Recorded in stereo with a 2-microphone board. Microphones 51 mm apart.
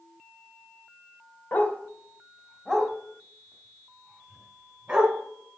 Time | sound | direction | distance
1.5 | a dog barking | 35° left (ahead or behind) | 1.1 m